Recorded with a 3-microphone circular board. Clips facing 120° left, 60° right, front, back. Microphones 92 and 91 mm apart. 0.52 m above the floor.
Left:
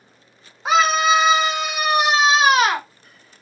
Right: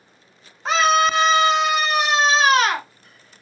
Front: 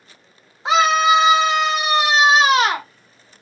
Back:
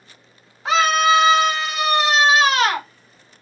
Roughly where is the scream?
Ahead left.